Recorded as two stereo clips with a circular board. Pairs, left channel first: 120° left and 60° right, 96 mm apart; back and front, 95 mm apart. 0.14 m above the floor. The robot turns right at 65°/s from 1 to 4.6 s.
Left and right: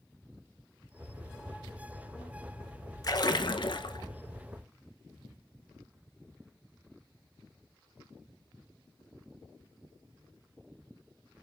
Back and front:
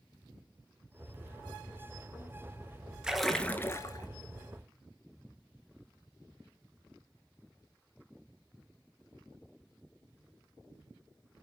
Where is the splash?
80° left, 0.6 m; by 4.1 s 150° left, 0.6 m.